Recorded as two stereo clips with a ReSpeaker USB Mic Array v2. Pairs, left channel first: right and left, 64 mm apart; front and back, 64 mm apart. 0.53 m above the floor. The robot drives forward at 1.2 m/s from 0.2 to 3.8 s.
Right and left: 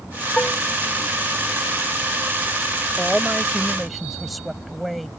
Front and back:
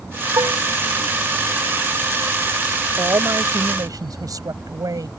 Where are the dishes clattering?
160° right.